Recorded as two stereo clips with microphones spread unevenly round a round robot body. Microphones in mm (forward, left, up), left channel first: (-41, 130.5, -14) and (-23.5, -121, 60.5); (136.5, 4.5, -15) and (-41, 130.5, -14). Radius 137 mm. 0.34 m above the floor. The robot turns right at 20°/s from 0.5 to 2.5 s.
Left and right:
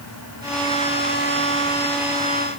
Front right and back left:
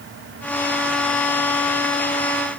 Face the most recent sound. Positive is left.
No sound to turn to.